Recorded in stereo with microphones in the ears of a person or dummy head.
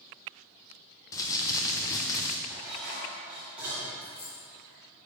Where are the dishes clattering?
5° right (ahead or behind), 2.5 m.